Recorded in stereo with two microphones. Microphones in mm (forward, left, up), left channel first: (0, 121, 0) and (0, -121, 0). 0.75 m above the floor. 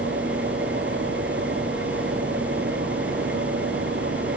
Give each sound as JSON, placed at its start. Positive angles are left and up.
{"t": 0.0, "sound": "an engine running", "side_deg": -50}